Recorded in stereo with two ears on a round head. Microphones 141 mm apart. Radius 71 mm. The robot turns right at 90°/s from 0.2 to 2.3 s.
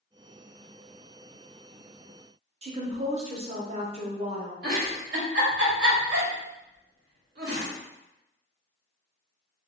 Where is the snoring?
I don't hear snoring.